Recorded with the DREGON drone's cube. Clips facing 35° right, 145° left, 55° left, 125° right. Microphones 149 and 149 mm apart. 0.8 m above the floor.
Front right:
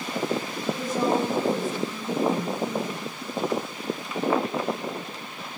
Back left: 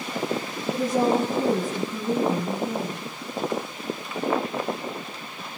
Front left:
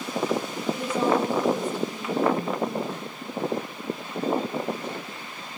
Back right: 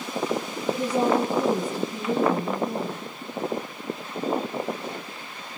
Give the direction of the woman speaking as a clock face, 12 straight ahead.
6 o'clock.